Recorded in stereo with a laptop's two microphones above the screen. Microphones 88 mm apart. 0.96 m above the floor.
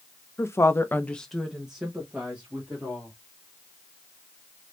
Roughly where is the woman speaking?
Left.